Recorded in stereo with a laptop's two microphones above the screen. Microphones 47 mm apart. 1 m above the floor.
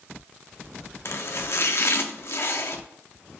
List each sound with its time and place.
1.1 s chopping: 55° left (ahead or behind), 0.7 m